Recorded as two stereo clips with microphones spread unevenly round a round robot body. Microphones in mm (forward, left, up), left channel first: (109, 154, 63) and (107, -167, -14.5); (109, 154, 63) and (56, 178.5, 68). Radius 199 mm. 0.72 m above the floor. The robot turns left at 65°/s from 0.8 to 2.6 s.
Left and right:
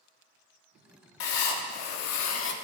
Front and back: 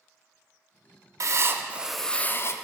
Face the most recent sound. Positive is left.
turn(degrees=25)